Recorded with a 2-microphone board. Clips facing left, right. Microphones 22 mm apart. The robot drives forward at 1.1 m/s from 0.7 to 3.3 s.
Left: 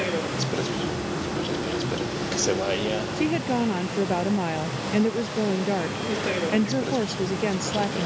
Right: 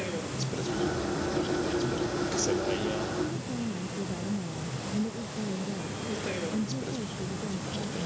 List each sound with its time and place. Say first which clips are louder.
0.0 s a vehicle: left 7 dB; 30° left (ahead or behind)
3.2 s a woman speaking: left 9 dB; 80° left